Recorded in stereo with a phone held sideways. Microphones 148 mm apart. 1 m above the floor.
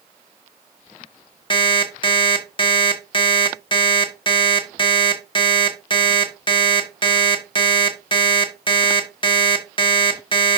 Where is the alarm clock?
35° left (ahead or behind), 1.2 m.